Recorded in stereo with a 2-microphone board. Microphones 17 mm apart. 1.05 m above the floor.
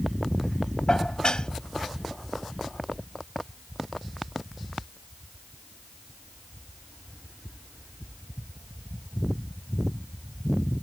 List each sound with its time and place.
0.9 s dishes clattering: 50° left (ahead or behind)